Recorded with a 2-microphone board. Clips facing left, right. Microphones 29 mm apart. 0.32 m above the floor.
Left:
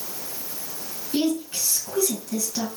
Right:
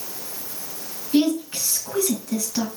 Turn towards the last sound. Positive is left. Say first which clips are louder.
# right 4 dB
turn(degrees=-25)  # may be behind; listen again after turning